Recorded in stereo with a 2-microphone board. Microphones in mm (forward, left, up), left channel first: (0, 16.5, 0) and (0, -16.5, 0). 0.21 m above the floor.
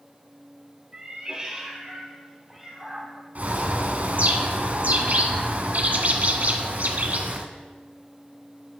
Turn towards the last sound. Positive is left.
turn(degrees=-55)  # may be behind; listen again after turning